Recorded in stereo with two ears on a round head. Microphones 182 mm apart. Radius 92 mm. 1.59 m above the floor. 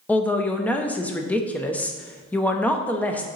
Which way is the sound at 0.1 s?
10° left (ahead or behind).